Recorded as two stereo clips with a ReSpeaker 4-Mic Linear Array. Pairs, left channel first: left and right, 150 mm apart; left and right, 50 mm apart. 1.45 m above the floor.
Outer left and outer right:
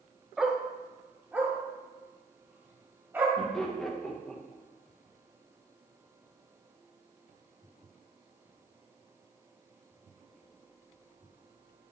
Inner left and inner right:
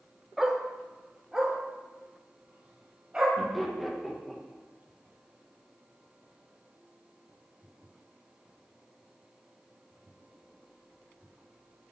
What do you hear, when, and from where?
0.4 s a dog barking: 5° right (ahead or behind), 0.9 m; by 3.3 s 15° right (ahead or behind), 3.5 m
3.4 s laughter: 5° left (ahead or behind), 1.6 m